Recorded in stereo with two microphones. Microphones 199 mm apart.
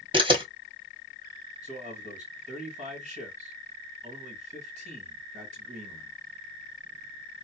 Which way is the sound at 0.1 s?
25° right (ahead or behind).